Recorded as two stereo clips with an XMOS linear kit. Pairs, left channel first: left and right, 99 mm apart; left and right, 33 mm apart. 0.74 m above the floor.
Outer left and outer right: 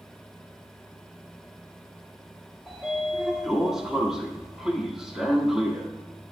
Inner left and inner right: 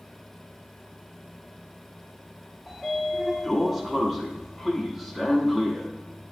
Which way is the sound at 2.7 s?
5° right (ahead or behind).